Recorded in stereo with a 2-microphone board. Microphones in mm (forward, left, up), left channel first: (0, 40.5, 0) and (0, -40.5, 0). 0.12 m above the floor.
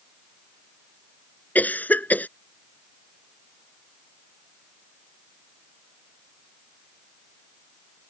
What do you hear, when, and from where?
1.6 s a cough: 20° left (ahead or behind)